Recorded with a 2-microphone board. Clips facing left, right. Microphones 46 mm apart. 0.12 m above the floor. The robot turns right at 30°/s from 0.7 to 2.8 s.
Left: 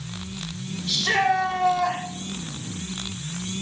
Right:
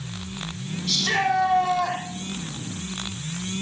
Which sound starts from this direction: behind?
A shout, at 0.9 s.